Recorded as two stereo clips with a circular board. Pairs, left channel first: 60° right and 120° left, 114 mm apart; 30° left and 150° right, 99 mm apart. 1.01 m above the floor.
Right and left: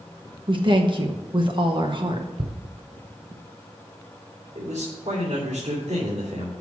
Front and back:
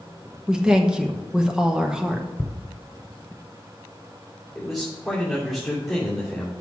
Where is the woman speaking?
135° left, 1.0 m.